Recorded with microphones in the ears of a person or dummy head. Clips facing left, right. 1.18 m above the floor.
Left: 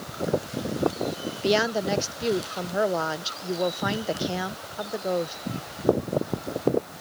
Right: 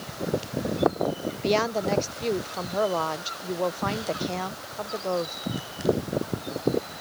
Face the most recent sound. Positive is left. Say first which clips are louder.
# left 1 dB
turn(degrees=10)  # may be behind; listen again after turning